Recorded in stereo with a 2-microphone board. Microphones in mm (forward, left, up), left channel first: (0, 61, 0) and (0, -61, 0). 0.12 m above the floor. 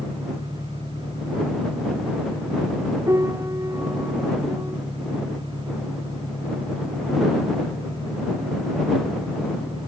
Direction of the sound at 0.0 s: 30° left (ahead or behind).